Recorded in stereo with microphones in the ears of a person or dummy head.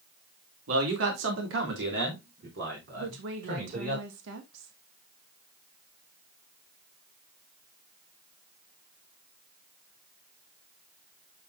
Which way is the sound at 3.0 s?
70° right (ahead or behind).